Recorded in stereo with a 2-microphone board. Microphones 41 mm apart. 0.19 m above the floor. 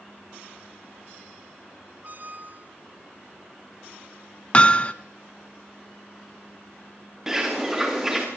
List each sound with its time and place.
2.0 s a squeak: 45° right (ahead or behind), 1.8 m
4.5 s hammering: 25° left (ahead or behind), 0.9 m
7.3 s a bird: 10° right (ahead or behind), 4.5 m